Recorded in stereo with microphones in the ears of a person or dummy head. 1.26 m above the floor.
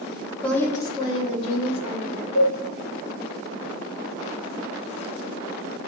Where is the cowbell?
45° left (ahead or behind), 0.7 m.